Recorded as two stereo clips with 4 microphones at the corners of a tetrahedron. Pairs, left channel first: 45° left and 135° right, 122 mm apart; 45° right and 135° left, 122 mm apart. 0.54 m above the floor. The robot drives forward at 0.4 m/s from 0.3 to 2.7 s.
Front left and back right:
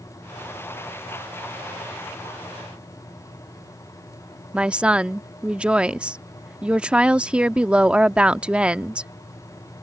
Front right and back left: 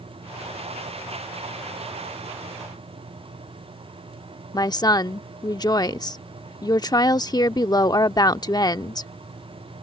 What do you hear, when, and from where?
4.5 s a woman speaking: 60° right